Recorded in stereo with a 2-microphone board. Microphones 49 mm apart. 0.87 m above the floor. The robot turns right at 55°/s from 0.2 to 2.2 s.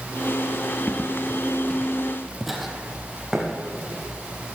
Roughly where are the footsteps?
Left.